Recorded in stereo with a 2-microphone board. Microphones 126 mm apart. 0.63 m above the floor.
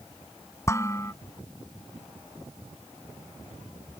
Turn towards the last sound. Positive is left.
turn(degrees=25)  # may be behind; listen again after turning